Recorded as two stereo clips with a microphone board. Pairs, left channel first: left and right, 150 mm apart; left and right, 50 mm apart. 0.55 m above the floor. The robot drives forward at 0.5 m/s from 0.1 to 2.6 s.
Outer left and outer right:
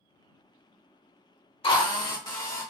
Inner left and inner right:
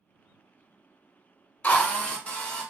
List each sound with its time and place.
1.6 s a drill: 35° left (ahead or behind), 0.8 m; by 2.7 s 25° left (ahead or behind), 1.3 m